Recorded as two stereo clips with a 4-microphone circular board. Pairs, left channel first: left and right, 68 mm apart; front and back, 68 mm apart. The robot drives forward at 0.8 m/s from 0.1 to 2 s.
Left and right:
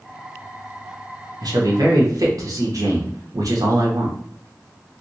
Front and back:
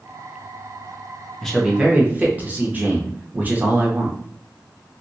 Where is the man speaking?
85° right, 0.8 m; by 4.2 s 115° right, 0.9 m.